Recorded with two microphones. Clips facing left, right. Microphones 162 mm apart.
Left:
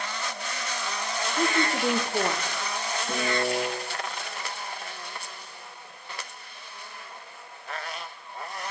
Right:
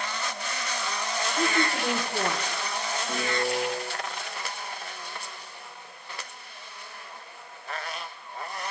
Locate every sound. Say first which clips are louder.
1.2 s a woman speaking: left 1 dB; 15° left (ahead or behind), 0.8 m
3.1 s a piano: left 2 dB; 40° left (ahead or behind), 4.5 m